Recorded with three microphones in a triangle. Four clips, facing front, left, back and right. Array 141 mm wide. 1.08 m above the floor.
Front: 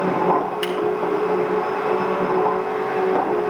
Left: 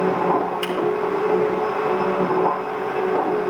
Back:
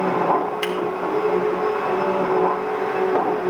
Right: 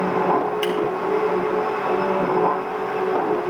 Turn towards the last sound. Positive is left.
turn(degrees=-175)